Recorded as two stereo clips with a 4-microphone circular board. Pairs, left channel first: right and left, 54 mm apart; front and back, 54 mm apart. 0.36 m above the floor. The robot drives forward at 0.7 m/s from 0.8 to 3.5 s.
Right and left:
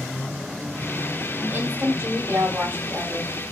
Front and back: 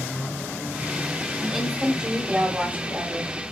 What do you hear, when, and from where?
1.4 s a woman speaking: 85° left, 1.5 m; by 3.5 s 145° left, 2 m